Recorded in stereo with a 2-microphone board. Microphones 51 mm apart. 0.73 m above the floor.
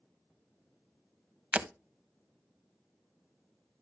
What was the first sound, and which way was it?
Breaking glass, 25° right (ahead or behind).